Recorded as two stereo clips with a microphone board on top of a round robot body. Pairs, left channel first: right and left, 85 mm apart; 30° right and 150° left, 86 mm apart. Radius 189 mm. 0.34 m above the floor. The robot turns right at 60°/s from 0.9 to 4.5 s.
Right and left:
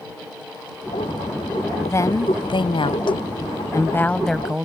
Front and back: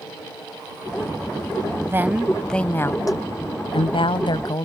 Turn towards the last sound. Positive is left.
turn(degrees=10)